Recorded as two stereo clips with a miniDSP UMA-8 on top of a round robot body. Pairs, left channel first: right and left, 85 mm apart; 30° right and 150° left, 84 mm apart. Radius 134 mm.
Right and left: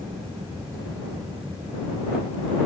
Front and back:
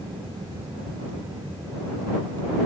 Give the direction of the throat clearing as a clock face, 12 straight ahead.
I don't hear throat clearing.